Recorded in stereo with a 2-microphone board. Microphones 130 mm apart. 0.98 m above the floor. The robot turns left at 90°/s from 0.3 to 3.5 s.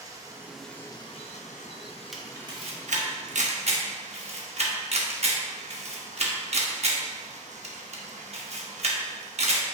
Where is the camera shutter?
Centre (ahead or behind), 1.1 m; by 9.7 s 55° right (ahead or behind), 1.1 m.